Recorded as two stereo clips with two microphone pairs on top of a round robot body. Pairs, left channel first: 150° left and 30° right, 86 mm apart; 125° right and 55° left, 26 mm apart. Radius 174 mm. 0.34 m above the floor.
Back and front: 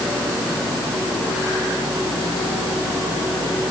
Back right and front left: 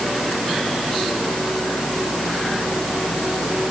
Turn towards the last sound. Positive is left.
No sound to turn to.